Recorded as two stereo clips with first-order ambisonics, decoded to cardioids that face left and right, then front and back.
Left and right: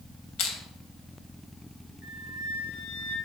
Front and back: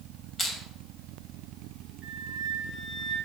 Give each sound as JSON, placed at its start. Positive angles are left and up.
{"t": 0.4, "sound": "crushing", "azimuth_deg": 70, "distance_m": 2.5}
{"t": 2.0, "sound": "a flute", "azimuth_deg": 85, "distance_m": 2.0}